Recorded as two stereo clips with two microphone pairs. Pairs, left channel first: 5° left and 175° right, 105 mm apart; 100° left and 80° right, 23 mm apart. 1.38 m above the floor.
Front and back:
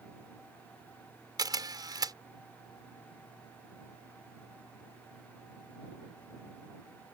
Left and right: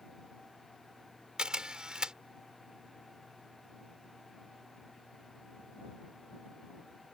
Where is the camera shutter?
125° right.